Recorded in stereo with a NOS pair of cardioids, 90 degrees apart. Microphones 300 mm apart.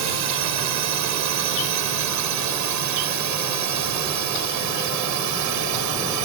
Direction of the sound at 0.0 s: 65° right.